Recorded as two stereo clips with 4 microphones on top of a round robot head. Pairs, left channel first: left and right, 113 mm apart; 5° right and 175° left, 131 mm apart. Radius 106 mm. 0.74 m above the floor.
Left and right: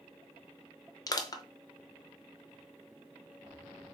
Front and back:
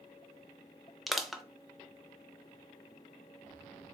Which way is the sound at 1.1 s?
85° left.